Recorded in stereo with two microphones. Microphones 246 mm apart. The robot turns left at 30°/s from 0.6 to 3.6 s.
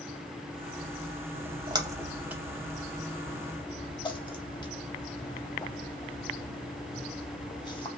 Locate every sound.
1.3 s a splash: 25° right (ahead or behind), 0.5 m; by 7.9 s 20° left (ahead or behind), 0.5 m